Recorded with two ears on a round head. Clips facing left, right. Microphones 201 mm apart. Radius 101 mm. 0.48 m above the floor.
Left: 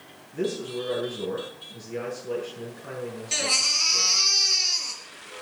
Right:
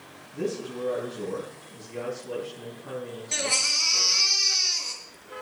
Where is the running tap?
I don't hear a running tap.